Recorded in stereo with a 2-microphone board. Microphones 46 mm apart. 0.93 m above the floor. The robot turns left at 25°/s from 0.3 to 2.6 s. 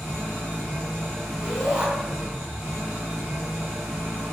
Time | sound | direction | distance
0.0 | an engine running | 35° left | 1.5 m
1.4 | a shout | 15° right (ahead or behind) | 1.8 m